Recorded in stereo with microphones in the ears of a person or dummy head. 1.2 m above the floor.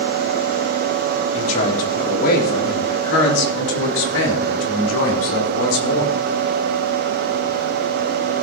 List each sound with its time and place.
1.3 s a man speaking: 40° left (ahead or behind), 3.5 m; by 6.2 s 85° left, 5 m